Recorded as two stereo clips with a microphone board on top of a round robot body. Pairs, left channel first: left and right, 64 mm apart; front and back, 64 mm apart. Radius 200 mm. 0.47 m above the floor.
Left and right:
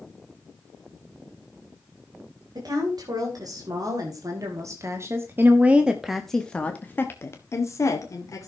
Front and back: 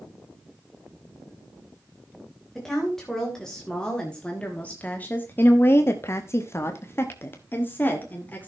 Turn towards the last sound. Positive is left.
turn(degrees=60)